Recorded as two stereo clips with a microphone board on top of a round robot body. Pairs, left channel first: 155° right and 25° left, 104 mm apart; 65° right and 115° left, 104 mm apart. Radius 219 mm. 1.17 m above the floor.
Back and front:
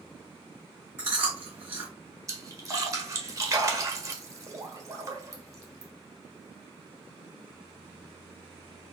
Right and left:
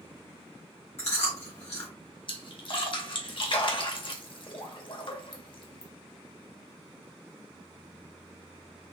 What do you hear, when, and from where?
1.0 s chewing: 50° right, 1.9 m
2.3 s a splash: 35° right, 1.4 m